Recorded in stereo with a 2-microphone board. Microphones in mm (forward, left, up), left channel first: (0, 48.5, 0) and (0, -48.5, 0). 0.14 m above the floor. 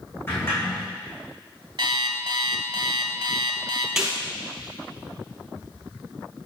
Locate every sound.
0.3 s a sliding door: 25° left (ahead or behind), 2.5 m
1.8 s an alarm clock: 55° right (ahead or behind), 1.0 m
4.0 s a snare drum: 5° right (ahead or behind), 3.5 m